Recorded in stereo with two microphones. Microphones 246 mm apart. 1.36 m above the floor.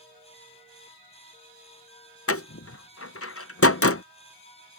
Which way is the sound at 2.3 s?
65° left (ahead or behind).